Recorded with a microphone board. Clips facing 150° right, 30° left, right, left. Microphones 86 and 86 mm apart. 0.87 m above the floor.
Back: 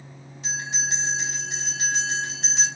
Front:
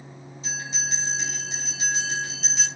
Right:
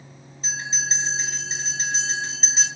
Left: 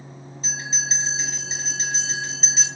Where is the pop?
No pop in this recording.